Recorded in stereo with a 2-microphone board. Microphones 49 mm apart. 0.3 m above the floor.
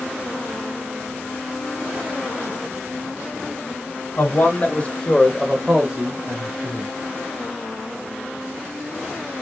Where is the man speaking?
45° left (ahead or behind), 1.6 m; by 6.9 s 45° right (ahead or behind), 1.7 m.